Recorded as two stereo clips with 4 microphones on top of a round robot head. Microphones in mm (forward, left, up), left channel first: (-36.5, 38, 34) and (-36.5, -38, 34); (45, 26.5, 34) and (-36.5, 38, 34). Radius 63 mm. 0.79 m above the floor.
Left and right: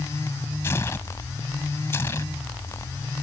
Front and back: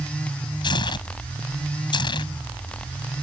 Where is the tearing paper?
20° left.